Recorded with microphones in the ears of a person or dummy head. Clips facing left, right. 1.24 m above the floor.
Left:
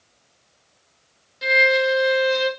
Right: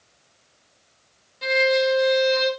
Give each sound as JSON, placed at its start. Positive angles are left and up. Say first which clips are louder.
{"t": 1.4, "sound": "a violin", "louder": "even", "side_deg": 15, "distance_m": 0.8}